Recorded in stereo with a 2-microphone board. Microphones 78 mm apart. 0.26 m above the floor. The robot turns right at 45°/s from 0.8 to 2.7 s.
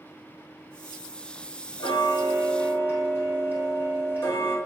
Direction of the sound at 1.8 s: 110° left.